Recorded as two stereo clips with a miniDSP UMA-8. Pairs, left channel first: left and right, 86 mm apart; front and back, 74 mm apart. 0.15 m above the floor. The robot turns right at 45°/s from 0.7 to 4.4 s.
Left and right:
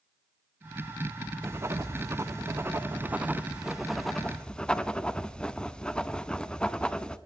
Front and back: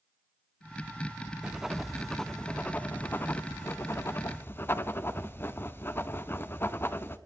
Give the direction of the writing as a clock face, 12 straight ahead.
4 o'clock.